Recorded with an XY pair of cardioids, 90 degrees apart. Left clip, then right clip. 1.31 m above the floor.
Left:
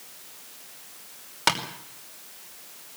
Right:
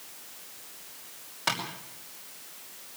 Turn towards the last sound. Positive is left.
turn(degrees=70)